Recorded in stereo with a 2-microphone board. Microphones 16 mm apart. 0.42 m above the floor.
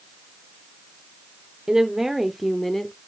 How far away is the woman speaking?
About 0.8 m.